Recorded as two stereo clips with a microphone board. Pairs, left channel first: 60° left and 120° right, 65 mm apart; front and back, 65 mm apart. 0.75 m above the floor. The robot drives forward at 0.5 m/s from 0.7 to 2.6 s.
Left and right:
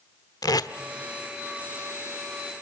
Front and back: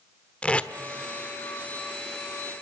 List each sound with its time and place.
0.4 s tape being pulled: 75° left, 1.0 m